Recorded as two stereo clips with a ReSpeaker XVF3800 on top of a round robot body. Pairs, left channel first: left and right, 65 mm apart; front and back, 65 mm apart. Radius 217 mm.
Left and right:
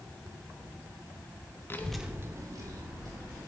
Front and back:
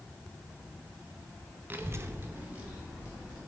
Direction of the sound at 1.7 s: 130° left.